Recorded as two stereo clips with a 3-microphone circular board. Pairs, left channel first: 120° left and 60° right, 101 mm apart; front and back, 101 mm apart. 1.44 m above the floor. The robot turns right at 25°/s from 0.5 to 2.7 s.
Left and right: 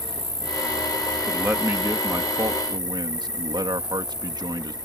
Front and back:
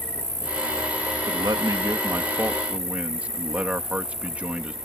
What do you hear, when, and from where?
0.0 s an insect: 70° right; by 4.8 s 15° right
1.3 s a man speaking: 140° right; by 4.8 s 105° right